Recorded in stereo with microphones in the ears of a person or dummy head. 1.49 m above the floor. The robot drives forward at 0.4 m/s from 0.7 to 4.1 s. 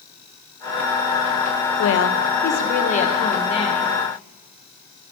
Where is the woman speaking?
70° left (ahead or behind), 0.6 m; by 3.9 s 30° left (ahead or behind), 1.2 m.